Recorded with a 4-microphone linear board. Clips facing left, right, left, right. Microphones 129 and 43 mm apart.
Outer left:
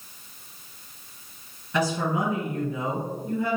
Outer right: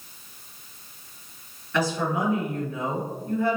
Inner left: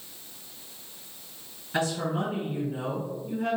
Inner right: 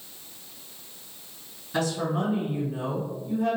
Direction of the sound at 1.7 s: 20° left (ahead or behind).